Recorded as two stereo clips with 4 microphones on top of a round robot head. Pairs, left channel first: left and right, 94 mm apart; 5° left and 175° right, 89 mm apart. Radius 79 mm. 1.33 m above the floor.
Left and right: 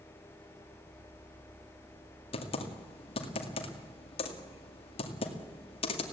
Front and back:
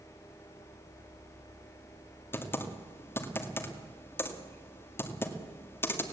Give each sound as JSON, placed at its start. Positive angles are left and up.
{"t": 2.3, "sound": "typing on a keyboard", "azimuth_deg": 70, "distance_m": 2.0}